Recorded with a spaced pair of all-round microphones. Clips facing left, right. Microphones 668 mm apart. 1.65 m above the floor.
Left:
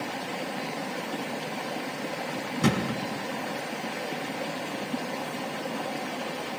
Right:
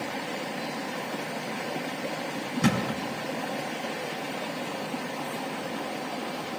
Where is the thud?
5° left (ahead or behind), 4.5 m.